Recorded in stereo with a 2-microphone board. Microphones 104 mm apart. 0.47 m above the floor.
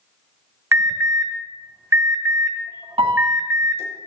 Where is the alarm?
25° right (ahead or behind), 1.5 m.